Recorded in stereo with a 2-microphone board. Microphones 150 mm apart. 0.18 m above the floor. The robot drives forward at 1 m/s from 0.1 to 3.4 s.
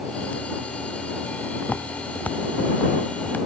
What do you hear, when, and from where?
1.6 s footsteps: 10° left (ahead or behind)